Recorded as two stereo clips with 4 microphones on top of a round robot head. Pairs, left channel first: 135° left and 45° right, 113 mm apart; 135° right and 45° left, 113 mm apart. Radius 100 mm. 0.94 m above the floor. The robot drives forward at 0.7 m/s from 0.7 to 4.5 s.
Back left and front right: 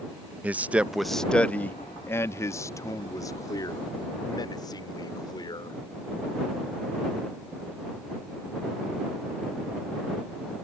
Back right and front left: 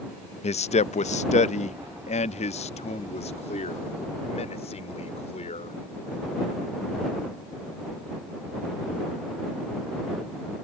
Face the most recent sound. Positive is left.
turn(degrees=-170)